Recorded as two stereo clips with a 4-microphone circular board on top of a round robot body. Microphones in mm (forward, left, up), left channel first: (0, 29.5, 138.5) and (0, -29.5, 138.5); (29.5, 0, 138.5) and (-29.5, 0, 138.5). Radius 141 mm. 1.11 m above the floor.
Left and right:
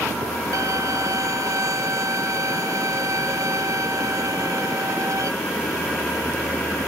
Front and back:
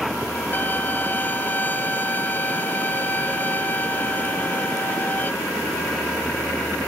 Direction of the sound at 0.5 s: 60° right.